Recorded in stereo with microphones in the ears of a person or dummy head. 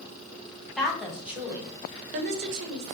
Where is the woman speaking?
5° left (ahead or behind), 1.0 m; by 3.0 s 75° right (ahead or behind), 0.7 m.